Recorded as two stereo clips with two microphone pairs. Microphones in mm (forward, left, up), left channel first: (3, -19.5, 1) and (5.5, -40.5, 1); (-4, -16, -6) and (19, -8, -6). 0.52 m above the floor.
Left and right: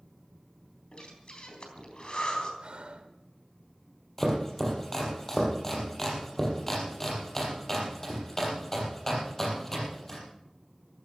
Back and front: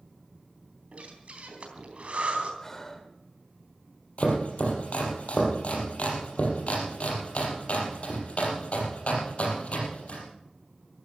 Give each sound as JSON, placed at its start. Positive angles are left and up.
{"t": 0.9, "sound": "breathing", "azimuth_deg": 55, "distance_m": 3.5}
{"t": 2.6, "sound": "breathing", "azimuth_deg": -90, "distance_m": 1.7}
{"t": 4.2, "sound": "chopping", "azimuth_deg": 170, "distance_m": 4.5}